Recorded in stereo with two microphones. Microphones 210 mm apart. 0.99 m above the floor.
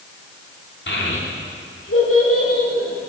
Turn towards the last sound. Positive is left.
turn(degrees=85)